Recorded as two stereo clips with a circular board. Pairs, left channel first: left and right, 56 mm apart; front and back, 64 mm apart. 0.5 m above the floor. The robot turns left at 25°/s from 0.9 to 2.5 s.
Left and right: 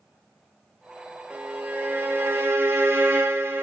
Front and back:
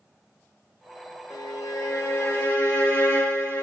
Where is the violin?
20° right, 0.9 m; by 3.6 s 50° right, 0.9 m.